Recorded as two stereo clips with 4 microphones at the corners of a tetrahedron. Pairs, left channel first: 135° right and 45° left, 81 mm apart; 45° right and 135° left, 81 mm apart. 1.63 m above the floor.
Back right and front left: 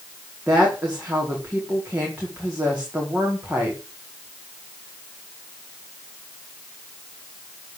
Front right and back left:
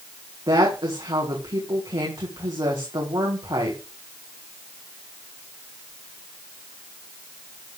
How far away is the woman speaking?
About 4.5 m.